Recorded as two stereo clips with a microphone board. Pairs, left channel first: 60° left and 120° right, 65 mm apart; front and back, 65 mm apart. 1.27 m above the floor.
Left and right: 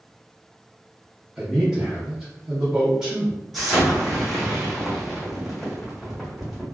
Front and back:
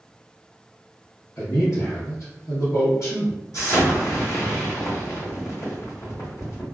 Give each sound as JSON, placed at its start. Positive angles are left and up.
{"t": 1.4, "sound": "a man speaking", "azimuth_deg": -40, "distance_m": 0.9}
{"t": 3.5, "sound": "an explosion", "azimuth_deg": -25, "distance_m": 1.2}